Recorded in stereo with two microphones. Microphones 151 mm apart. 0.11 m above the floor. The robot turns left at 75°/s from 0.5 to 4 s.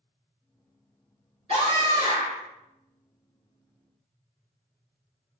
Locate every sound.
1.5 s a scream: 95° right, 2.0 m; by 2.4 s 165° right, 2.0 m